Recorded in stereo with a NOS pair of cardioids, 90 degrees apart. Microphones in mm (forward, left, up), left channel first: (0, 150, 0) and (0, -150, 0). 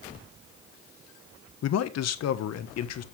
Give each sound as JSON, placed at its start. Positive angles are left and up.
{"t": 1.6, "sound": "a man speaking", "azimuth_deg": 60, "distance_m": 1.2}